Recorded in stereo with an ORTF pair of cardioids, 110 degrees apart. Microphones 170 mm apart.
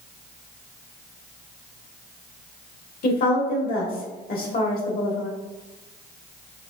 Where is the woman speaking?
55° left, 1.3 m.